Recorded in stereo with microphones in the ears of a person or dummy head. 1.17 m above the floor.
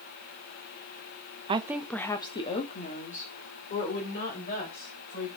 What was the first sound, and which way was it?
A woman speaking, 30° right (ahead or behind).